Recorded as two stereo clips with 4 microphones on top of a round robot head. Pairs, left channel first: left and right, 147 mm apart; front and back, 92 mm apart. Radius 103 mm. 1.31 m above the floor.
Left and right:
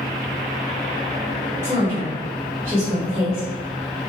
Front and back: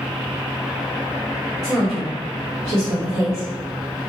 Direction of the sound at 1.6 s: 15° right.